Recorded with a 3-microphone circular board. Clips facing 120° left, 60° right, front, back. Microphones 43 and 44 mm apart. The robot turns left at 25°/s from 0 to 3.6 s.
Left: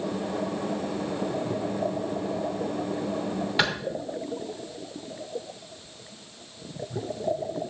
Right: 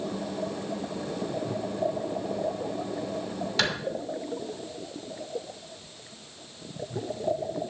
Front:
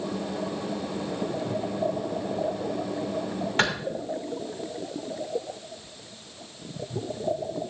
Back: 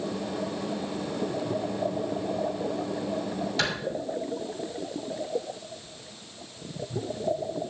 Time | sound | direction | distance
3.6 | a clap | 50° left | 3 m